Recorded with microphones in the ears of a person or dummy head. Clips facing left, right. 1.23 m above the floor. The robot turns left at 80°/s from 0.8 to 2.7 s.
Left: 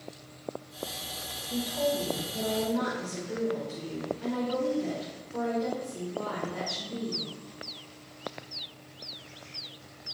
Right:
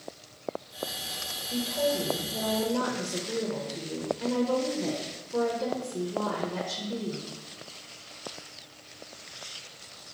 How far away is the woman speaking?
About 0.9 m.